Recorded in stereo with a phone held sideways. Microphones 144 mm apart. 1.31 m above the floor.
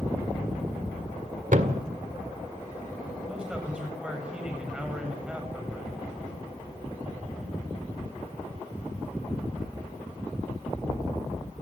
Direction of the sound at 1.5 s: 65° right (ahead or behind).